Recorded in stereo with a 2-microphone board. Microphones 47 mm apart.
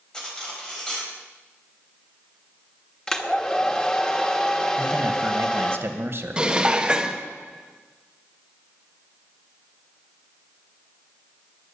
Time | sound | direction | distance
0.1 | cutlery clinking | 15° left (ahead or behind) | 4.5 m
3.1 | a hair dryer | 20° left (ahead or behind) | 1.3 m
4.8 | a man speaking | 55° right (ahead or behind) | 1.3 m
6.4 | dishes clattering | 20° right (ahead or behind) | 1.1 m